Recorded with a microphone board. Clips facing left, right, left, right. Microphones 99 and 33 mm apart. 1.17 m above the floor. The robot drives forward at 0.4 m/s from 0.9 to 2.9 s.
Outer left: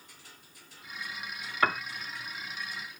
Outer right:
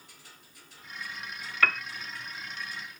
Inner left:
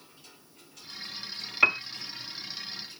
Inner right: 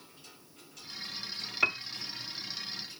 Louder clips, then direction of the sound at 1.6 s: Outer left 1 dB, inner left 6 dB; 25° left (ahead or behind).